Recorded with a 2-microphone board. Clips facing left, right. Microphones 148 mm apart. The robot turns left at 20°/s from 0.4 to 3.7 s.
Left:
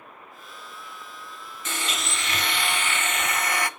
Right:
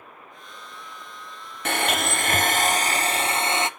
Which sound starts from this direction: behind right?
A blender, at 1.6 s.